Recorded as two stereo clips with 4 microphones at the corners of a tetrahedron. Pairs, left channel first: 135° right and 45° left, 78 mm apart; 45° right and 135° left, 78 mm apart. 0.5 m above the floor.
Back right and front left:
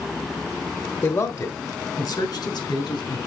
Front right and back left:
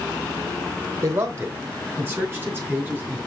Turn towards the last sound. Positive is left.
turn(degrees=-155)